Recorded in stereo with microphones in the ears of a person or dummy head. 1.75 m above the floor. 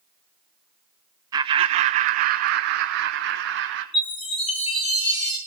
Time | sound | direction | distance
1.3 | laughter | 20° right (ahead or behind) | 0.6 m
3.9 | a chime | 35° left (ahead or behind) | 7.5 m